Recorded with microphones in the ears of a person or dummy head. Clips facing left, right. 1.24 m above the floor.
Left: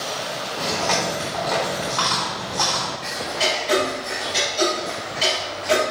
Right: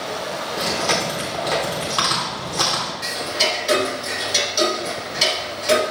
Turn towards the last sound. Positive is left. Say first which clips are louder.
# right 1 dB
turn(degrees=-85)